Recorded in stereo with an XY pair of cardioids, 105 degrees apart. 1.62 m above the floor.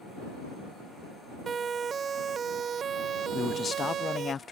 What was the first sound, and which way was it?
A siren, 35° right.